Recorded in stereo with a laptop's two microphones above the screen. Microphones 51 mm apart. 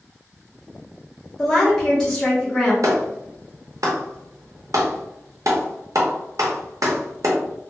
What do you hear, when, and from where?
1.4 s a woman speaking: 10° left (ahead or behind), 0.8 m
2.8 s a clap: 75° right (ahead or behind), 0.7 m